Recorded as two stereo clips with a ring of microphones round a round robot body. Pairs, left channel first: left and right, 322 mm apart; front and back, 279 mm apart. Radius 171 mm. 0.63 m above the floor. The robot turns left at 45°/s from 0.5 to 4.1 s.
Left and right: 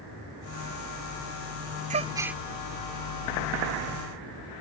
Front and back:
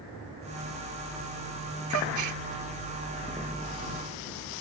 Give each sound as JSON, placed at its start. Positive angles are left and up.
{"t": 1.9, "sound": "a gasp", "azimuth_deg": -155}